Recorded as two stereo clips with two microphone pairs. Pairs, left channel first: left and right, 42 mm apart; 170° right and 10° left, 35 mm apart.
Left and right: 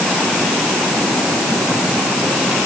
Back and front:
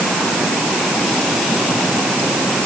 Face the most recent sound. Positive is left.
No sound to turn to.